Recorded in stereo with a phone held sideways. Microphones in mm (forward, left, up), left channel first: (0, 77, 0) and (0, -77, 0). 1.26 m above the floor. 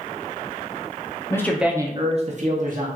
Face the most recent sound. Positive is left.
turn(degrees=-60)  # may be behind; listen again after turning